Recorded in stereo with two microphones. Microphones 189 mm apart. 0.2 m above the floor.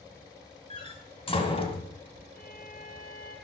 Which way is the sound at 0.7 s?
30° left (ahead or behind).